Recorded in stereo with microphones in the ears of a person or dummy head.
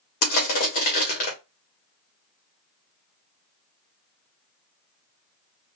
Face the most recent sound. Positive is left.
turn(degrees=45)  # may be behind; listen again after turning